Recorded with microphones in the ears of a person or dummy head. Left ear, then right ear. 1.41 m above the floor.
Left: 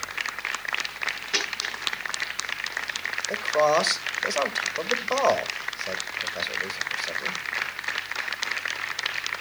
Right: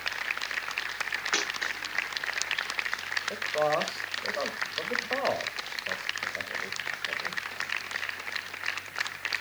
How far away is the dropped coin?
About 7 m.